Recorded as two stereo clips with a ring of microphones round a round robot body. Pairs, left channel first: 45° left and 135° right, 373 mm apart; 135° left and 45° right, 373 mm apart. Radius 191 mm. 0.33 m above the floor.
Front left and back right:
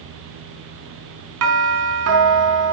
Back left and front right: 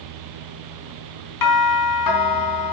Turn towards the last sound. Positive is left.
turn(degrees=175)